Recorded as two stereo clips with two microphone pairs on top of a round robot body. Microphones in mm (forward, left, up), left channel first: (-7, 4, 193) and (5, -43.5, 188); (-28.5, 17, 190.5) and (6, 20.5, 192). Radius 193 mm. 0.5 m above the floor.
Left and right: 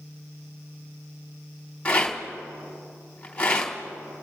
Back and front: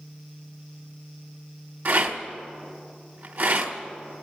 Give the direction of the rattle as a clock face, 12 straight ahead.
11 o'clock.